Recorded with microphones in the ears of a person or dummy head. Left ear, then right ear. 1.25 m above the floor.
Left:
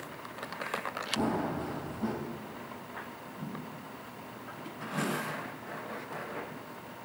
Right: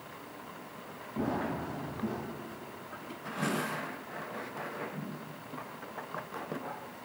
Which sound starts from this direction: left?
Running footsteps, at 1.2 s.